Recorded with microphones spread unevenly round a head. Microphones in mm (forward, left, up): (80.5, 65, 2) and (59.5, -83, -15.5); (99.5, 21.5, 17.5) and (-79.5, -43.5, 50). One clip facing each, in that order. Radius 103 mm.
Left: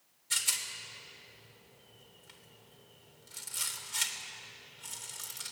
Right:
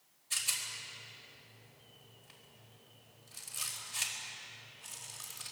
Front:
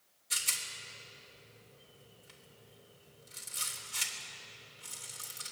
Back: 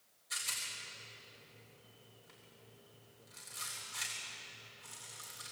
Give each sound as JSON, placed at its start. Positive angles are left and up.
{"t": 0.3, "sound": "a rattle", "azimuth_deg": 75, "distance_m": 3.5}